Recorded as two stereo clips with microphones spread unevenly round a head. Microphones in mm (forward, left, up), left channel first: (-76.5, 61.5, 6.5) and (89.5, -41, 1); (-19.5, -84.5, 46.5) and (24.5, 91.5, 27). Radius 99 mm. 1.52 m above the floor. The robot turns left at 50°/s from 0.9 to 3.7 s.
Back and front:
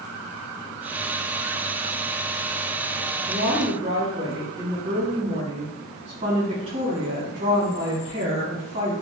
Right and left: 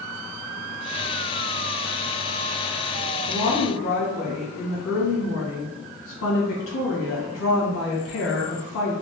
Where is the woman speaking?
75° right, 1.9 m; by 8.9 s 95° right, 1.9 m.